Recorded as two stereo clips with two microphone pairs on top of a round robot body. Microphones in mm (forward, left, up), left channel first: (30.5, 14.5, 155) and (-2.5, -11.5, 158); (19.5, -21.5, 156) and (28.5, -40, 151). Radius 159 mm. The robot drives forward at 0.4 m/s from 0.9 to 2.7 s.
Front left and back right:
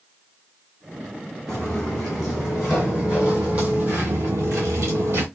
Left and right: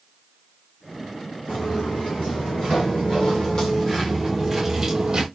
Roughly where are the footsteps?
Behind left.